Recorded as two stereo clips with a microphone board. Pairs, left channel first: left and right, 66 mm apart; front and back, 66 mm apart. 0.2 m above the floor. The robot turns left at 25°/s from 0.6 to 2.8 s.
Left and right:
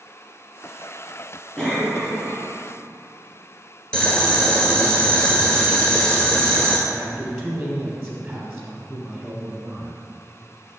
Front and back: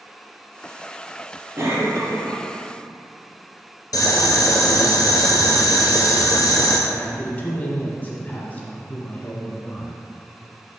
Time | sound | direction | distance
1.6 | a cough | 170° left | 1.4 m
3.9 | boiling | 15° left | 1.1 m
6.9 | a man speaking | 30° right | 1.0 m